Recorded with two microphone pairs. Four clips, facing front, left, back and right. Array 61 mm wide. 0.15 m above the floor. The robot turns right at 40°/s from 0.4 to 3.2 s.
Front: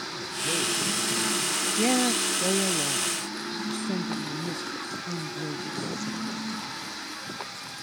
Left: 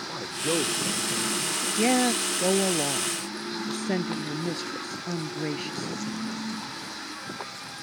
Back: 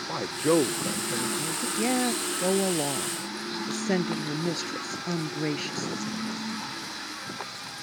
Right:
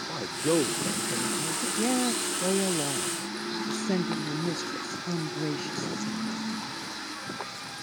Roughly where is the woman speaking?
Left.